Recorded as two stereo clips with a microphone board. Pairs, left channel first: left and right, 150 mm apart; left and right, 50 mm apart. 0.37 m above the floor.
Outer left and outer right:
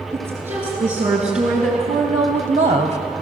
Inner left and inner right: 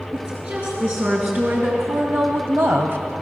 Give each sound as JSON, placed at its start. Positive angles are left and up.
{"t": 0.1, "sound": "a woman speaking", "side_deg": -50, "distance_m": 5.5}